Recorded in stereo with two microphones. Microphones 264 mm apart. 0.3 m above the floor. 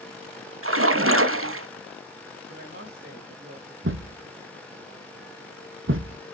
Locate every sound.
0.6 s a splash: 55° right (ahead or behind), 0.6 m
2.5 s a woman speaking: 45° right (ahead or behind), 2.5 m
3.8 s a thud: 50° right (ahead or behind), 0.6 m